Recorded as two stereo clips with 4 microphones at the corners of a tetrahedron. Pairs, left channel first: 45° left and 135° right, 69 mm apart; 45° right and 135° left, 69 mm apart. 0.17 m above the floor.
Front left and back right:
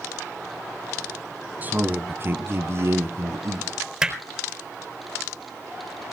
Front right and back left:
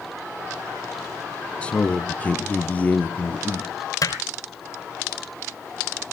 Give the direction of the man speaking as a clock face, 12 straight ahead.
3 o'clock.